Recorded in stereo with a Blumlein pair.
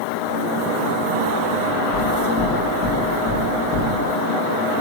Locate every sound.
1.9 s knocking: 25° left, 1.0 m